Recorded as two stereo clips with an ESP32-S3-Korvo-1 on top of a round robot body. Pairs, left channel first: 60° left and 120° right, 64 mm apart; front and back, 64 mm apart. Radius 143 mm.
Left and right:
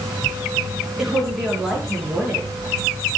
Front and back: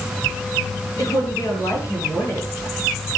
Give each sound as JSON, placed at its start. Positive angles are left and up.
{"t": 1.0, "sound": "a woman speaking", "azimuth_deg": -40, "distance_m": 8.0}